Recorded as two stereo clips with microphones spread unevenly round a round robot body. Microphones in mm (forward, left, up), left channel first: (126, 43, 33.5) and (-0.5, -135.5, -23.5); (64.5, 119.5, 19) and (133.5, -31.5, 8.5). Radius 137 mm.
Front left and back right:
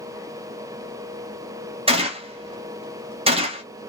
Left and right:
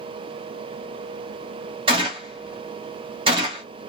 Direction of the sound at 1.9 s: 105° right.